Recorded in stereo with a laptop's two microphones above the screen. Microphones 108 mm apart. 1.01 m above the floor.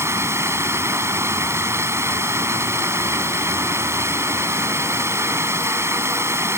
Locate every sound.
0.0 s running water: 25° right (ahead or behind)